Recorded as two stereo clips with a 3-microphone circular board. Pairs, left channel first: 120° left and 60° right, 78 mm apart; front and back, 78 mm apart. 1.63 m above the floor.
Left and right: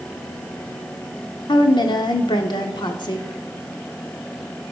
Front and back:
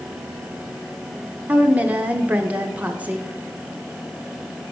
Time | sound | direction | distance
1.5 | a woman speaking | 110° left | 0.7 m